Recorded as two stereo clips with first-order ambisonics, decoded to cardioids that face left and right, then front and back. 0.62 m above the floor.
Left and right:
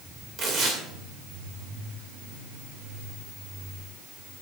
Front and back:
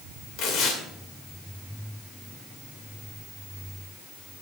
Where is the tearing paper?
35° right, 2.5 m.